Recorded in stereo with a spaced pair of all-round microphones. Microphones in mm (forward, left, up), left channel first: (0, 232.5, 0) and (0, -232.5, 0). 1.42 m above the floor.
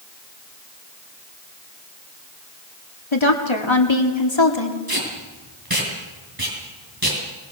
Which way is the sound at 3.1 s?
85° left.